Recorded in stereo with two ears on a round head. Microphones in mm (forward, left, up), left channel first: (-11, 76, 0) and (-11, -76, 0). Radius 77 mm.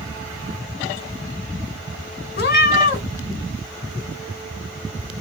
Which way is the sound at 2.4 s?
60° left (ahead or behind).